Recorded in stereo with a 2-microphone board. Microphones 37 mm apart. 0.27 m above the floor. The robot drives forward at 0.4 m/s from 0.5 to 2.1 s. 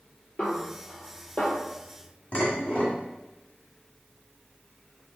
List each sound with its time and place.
0.4 s a snare drum: 40° left (ahead or behind), 1.7 m; by 1.6 s 35° left (ahead or behind), 2.0 m
2.3 s dishes clattering: 30° left (ahead or behind), 1.4 m